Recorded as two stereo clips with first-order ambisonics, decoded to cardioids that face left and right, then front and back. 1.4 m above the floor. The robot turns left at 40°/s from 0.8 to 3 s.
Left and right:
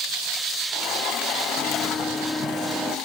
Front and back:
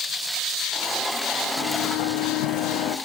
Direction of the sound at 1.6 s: 45° left.